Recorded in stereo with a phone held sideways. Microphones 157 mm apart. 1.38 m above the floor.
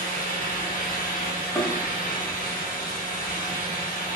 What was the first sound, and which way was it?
A fan, 65° left (ahead or behind).